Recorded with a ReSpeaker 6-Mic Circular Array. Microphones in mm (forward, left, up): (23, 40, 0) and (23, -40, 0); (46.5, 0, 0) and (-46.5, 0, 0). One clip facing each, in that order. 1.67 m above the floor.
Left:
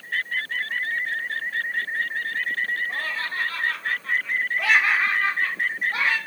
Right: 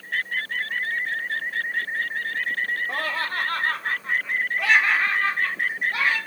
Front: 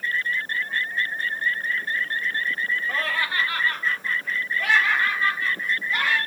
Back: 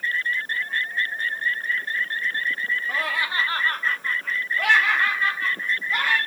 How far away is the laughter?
About 1.2 m.